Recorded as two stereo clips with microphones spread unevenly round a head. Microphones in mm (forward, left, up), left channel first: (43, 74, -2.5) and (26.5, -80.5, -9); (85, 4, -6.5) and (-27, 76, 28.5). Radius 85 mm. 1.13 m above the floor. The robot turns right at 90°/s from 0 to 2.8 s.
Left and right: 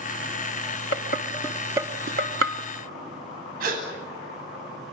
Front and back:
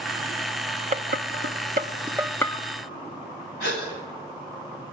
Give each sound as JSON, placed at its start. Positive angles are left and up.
{"t": 0.9, "sound": "dishes clattering", "azimuth_deg": 110, "distance_m": 1.4}
{"t": 3.6, "sound": "a gasp", "azimuth_deg": -70, "distance_m": 9.5}